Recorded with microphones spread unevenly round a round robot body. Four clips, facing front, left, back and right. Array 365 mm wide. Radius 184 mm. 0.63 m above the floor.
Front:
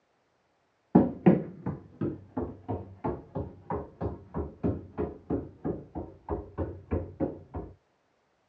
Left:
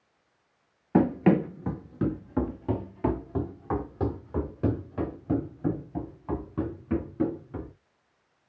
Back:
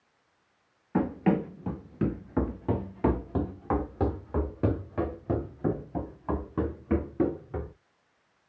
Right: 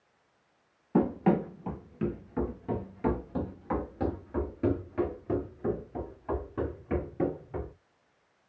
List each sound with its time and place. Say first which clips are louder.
0.9 s running footsteps: left 4 dB, front 4 dB; 30° left, 0.7 m; by 7.7 s 170° left, 3.5 m